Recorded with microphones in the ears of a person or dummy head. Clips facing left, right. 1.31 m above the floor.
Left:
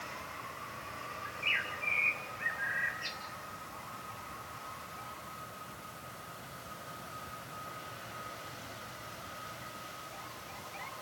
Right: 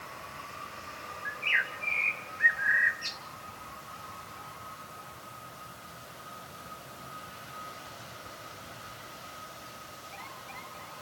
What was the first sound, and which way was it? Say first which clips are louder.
A bird: right 3 dB; 25° right (ahead or behind).